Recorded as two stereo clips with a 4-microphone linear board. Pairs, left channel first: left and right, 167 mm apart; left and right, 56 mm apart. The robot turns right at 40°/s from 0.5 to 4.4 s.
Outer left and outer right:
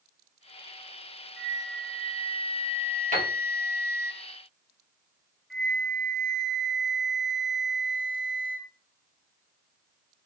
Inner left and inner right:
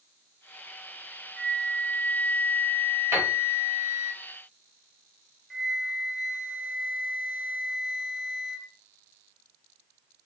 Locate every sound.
1.4 s a flute: 15° left, 1.4 m; by 4.1 s 125° left, 1.4 m
3.1 s a piano: 55° right (ahead or behind), 1.3 m; by 3.3 s 60° right (ahead or behind), 1.3 m
5.5 s a flute: centre (ahead or behind), 0.6 m